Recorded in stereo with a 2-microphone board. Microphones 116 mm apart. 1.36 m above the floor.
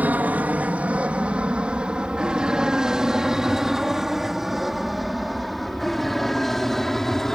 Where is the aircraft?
15° right (ahead or behind); by 7.3 s 5° left (ahead or behind).